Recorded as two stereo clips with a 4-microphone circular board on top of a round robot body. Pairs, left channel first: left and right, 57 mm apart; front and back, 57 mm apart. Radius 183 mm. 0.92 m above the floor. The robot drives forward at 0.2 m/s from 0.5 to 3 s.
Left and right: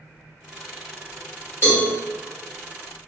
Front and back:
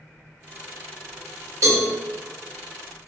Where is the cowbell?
140° left, 1.0 m; by 1.9 s 145° left, 1.0 m.